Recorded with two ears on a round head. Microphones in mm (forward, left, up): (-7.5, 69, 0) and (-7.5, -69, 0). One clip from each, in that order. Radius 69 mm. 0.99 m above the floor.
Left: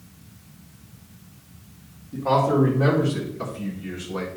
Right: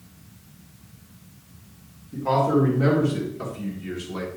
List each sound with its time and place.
2.1 s a man speaking: 5° right (ahead or behind), 2.5 m; by 4.3 s 30° right (ahead or behind), 2.0 m